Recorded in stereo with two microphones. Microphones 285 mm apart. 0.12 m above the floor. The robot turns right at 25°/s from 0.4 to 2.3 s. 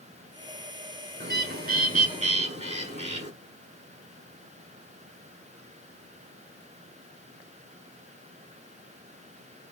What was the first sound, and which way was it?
A bird, 35° right (ahead or behind).